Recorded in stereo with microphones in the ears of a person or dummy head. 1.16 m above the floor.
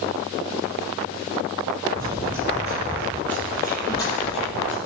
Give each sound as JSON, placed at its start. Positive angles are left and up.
{"t": 1.9, "sound": "running footsteps", "side_deg": -30, "distance_m": 1.7}